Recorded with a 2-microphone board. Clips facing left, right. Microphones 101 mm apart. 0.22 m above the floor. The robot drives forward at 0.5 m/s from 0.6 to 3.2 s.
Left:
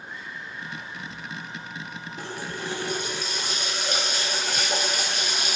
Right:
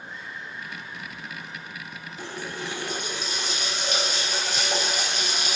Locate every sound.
2.2 s a running tap: 45° left (ahead or behind), 1.6 m; by 5.6 s 35° left (ahead or behind), 1.9 m